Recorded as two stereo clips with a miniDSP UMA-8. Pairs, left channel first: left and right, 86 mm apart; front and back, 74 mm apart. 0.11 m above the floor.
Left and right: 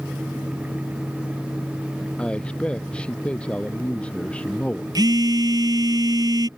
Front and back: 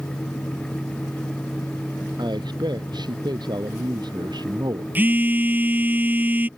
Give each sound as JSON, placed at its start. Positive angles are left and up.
{"t": 2.2, "sound": "a man speaking", "azimuth_deg": 170}
{"t": 5.0, "sound": "a phone buzzing", "azimuth_deg": -120}